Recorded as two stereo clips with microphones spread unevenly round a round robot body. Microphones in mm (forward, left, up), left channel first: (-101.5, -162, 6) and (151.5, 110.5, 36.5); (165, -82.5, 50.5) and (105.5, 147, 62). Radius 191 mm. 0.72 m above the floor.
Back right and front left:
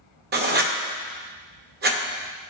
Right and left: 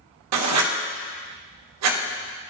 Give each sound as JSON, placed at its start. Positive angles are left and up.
{"t": 0.3, "sound": "writing", "azimuth_deg": 110, "distance_m": 0.7}